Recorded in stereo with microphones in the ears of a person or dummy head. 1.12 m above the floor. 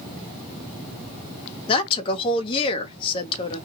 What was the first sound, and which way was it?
A woman speaking, 30° left (ahead or behind).